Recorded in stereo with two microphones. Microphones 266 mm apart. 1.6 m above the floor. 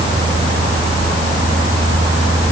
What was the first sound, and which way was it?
Only background noise.